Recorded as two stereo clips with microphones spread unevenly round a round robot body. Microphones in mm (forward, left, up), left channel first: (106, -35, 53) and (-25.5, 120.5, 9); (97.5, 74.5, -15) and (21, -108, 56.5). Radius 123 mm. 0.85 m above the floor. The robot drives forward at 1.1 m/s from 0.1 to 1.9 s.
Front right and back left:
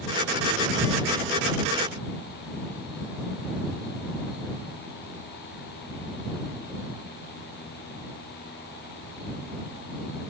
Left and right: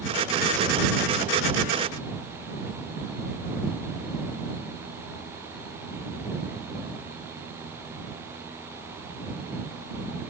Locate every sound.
Only background noise.